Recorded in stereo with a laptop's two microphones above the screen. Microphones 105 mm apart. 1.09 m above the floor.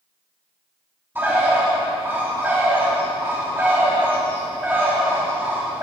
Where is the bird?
20° right (ahead or behind), 2.5 m.